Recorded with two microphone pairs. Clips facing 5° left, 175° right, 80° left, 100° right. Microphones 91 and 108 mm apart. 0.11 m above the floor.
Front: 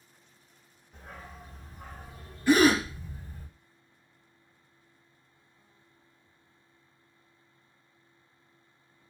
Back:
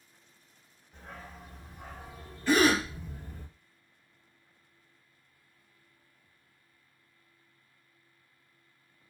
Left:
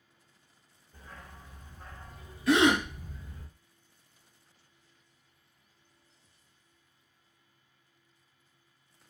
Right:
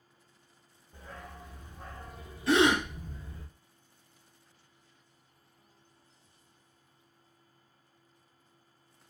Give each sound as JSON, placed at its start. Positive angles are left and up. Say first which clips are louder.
{"t": 0.9, "sound": "a dog barking", "louder": "even, right 4 dB", "azimuth_deg": -80, "distance_m": 1.2}
{"t": 2.5, "sound": "a gasp", "louder": "front 3 dB, left 1 dB", "azimuth_deg": -65, "distance_m": 1.7}